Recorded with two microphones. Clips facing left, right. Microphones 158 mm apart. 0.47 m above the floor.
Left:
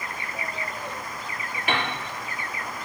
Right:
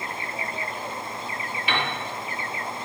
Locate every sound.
1.7 s a piano: 45° left (ahead or behind), 0.6 m